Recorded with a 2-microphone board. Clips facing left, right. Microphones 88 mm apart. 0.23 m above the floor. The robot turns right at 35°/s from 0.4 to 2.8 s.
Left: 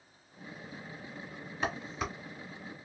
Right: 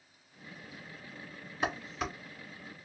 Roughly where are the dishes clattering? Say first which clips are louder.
Right 1 dB; centre.